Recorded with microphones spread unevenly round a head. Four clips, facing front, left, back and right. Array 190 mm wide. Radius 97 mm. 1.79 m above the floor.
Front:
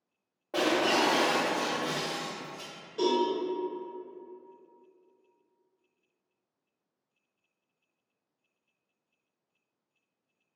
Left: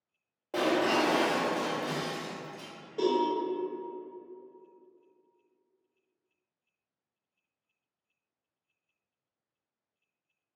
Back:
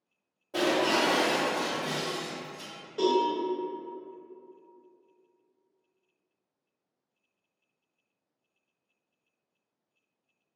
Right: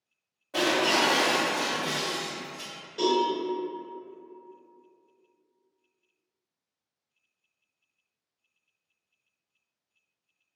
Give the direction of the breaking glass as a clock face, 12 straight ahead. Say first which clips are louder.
Right 1 dB, even; 10 o'clock.